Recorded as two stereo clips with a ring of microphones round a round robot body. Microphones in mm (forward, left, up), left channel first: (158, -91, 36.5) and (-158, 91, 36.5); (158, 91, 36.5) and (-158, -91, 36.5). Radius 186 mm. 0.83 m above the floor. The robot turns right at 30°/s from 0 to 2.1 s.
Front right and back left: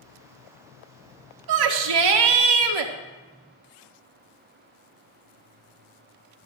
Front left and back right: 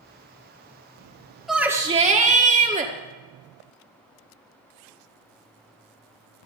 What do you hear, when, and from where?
1.5 s a shout: 120° left, 1.8 m; by 2.9 s 140° left, 1.8 m